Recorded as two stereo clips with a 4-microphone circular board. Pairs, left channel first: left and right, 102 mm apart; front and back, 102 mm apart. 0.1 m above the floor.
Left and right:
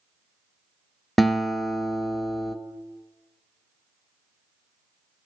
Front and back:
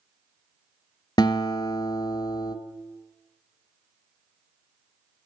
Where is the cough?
I don't hear a cough.